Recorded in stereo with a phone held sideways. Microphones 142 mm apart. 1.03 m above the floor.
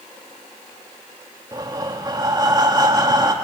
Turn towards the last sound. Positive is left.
turn(degrees=-30)  # may be behind; listen again after turning